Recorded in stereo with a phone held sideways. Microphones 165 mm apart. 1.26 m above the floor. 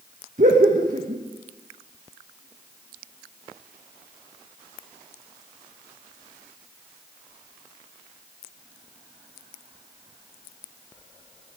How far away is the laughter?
About 1.6 m.